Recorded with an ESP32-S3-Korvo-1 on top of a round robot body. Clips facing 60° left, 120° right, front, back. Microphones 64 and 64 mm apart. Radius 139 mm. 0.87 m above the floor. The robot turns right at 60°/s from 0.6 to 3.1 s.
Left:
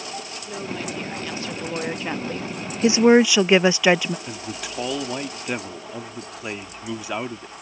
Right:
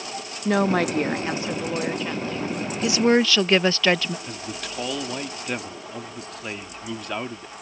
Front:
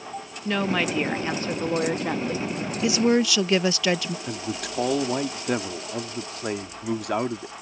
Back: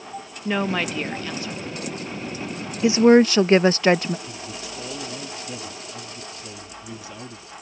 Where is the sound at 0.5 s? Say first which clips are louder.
Right 12 dB, back 1 dB; 100° right; by 2.5 s 15° left.